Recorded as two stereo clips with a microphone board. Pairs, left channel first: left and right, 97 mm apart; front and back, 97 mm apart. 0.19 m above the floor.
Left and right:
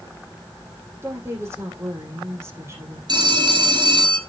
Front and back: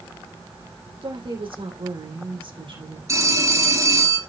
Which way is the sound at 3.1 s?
125° right.